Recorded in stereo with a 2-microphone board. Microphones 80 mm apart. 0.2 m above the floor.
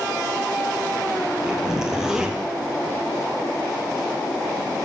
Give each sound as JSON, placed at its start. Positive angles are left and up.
{"t": 1.4, "sound": "a zipper", "side_deg": -10, "distance_m": 1.8}